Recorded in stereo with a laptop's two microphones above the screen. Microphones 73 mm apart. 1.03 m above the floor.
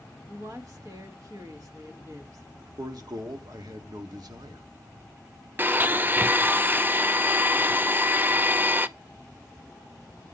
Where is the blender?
30° right (ahead or behind), 0.6 m.